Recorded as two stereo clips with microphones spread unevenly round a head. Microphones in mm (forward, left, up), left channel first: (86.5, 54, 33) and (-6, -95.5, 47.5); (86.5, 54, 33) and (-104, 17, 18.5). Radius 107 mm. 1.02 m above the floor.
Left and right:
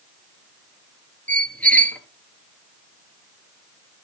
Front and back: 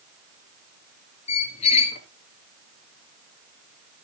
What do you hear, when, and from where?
1.3 s a squeak: 25° right, 1.2 m